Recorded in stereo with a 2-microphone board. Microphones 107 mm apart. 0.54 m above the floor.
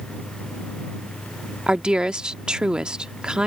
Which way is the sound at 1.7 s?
10° right (ahead or behind).